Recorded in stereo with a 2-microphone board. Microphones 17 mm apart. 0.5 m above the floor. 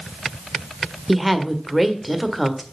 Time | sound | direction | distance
1.1 | a woman speaking | 10° right (ahead or behind) | 1.4 m